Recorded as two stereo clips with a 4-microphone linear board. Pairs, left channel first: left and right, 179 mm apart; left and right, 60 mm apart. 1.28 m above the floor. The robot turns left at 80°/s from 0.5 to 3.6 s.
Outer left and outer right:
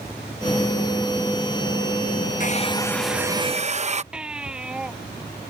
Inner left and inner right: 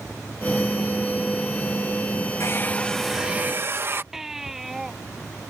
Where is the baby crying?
5° right (ahead or behind).